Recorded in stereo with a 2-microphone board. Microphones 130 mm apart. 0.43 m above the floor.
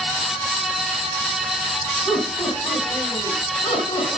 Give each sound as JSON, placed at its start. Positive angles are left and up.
{"t": 2.0, "sound": "laughter", "side_deg": 35, "distance_m": 4.0}